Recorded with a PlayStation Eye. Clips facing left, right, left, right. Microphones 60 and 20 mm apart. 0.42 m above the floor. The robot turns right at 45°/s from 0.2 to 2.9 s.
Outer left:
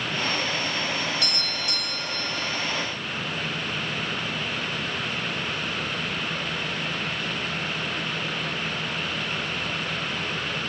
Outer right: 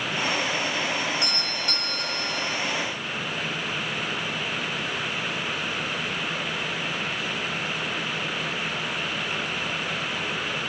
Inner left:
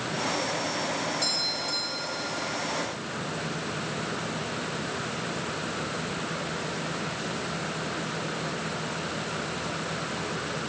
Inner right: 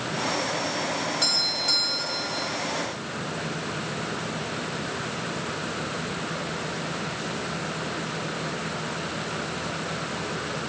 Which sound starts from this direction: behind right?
A doorbell, at 1.2 s.